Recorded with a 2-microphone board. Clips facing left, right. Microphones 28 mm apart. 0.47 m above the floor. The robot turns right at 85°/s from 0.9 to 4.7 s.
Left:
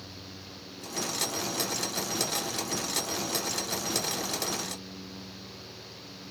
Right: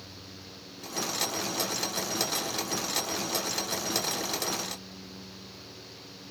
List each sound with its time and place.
Only background noise.